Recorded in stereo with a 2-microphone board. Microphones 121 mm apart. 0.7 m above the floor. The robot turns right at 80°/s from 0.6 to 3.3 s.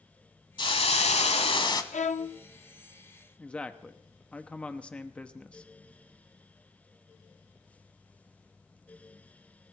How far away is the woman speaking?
About 0.8 m.